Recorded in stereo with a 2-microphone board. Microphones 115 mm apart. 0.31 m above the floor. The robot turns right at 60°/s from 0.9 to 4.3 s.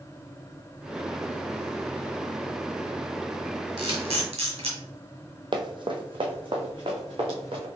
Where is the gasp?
I don't hear a gasp.